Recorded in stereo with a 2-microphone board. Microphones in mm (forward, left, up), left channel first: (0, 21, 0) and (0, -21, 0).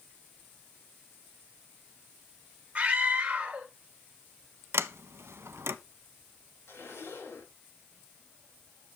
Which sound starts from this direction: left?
A zipper, at 6.7 s.